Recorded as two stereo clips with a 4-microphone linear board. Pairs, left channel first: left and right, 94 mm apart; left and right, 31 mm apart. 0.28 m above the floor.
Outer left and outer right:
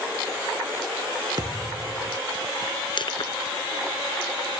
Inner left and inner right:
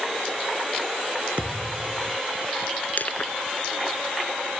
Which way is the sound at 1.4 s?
45° right (ahead or behind).